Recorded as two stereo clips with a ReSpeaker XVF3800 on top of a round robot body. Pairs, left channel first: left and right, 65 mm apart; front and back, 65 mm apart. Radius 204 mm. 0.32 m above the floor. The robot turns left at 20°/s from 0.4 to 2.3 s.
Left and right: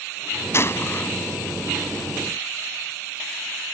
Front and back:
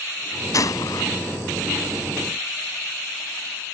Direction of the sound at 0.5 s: 40° left.